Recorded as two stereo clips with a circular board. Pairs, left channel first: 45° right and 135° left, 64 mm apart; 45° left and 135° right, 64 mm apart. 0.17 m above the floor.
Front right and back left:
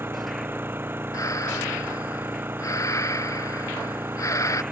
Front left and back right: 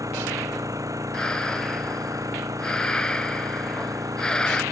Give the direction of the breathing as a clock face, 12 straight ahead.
1 o'clock.